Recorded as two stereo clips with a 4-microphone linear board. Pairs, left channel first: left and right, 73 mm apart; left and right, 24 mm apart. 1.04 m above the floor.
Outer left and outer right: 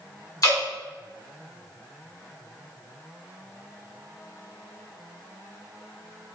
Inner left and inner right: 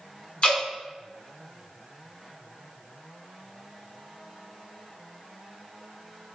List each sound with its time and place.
0.4 s dripping: 50° left (ahead or behind), 1.5 m